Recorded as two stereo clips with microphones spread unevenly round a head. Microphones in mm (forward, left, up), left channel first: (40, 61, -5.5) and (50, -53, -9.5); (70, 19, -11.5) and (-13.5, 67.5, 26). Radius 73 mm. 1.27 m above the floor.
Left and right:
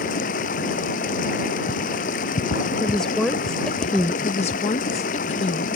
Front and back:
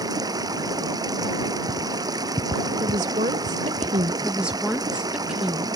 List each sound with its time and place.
0.0 s running water: 100° left
2.8 s a woman speaking: straight behind
4.2 s a woman speaking: 65° left